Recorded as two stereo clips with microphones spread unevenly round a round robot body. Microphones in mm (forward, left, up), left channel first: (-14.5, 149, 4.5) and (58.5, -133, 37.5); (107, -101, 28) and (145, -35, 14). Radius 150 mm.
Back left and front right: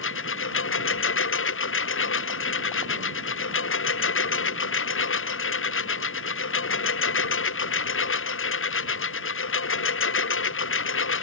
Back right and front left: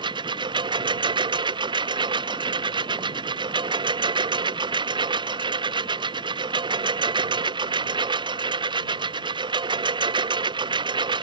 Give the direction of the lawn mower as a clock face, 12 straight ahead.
10 o'clock.